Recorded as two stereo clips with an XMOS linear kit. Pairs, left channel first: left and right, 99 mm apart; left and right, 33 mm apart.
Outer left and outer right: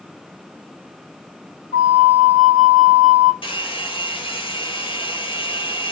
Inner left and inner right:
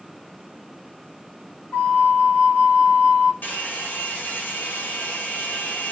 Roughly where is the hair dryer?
Left.